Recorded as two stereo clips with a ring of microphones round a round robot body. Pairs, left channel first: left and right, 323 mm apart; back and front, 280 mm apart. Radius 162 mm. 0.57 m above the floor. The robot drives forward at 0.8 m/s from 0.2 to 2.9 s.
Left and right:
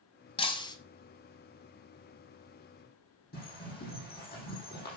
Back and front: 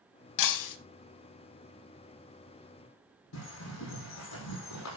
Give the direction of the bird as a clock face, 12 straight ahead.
7 o'clock.